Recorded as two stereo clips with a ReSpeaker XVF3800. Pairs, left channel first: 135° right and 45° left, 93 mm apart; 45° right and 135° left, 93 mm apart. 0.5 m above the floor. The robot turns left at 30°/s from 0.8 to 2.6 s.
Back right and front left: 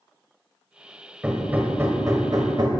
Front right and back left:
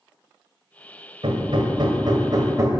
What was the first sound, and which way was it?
Hammering, 125° left.